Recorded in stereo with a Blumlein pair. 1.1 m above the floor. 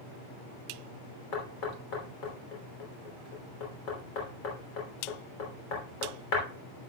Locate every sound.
1.3 s knocking: 40° left, 3 m